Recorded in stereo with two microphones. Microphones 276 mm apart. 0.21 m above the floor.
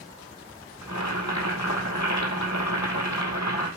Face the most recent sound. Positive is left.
turn(degrees=85)